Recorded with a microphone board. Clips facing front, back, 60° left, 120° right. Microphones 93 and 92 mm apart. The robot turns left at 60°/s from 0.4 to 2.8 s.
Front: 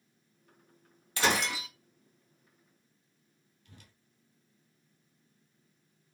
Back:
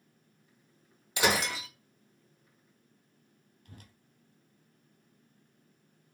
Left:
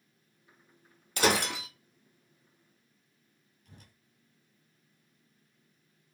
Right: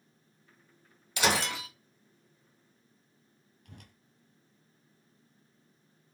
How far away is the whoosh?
About 0.6 m.